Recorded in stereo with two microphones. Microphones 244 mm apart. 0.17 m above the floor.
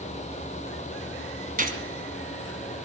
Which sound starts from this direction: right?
A gunshot, at 1.6 s.